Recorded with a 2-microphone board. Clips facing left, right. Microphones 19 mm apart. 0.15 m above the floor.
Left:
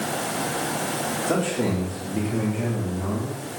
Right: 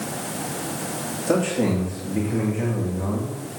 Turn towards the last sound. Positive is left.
turn(degrees=-35)  # may be behind; listen again after turning